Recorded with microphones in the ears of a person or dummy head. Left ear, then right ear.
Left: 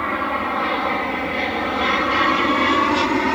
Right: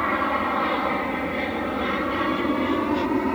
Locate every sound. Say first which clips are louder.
0.0 s an aircraft: left 1 dB; 5° left (ahead or behind); by 3.4 s 60° left (ahead or behind)